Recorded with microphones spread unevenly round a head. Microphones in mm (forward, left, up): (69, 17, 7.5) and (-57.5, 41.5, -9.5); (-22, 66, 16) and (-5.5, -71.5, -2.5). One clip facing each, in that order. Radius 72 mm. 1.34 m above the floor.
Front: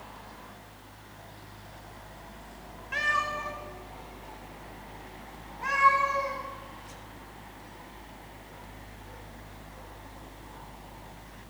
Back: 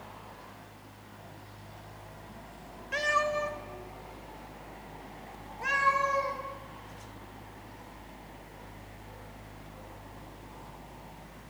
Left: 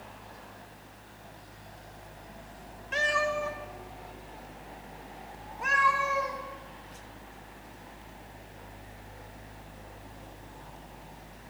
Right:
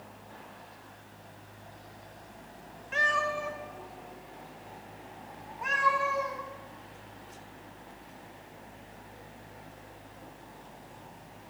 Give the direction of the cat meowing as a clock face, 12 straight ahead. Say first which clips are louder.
Back 3 dB, left 2 dB; 8 o'clock.